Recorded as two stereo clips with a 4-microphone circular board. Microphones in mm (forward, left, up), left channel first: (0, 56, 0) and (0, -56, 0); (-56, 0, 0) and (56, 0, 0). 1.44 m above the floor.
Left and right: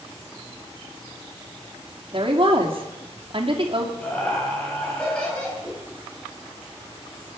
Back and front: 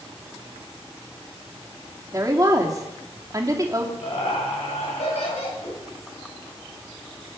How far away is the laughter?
About 10 m.